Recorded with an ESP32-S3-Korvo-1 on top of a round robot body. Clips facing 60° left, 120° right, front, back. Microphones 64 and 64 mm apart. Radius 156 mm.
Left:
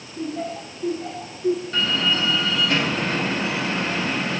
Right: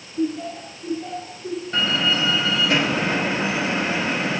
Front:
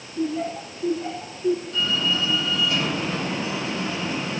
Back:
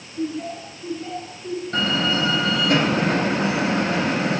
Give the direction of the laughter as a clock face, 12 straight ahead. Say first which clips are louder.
Right 3 dB, front 1 dB; 11 o'clock.